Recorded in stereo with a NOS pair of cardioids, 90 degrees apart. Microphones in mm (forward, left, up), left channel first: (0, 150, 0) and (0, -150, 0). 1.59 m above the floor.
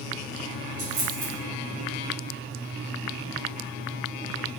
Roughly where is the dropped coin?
Ahead right.